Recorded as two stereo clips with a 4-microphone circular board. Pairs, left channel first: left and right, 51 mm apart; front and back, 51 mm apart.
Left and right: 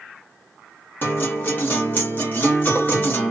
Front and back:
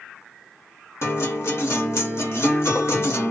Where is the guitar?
35° left, 1.2 m.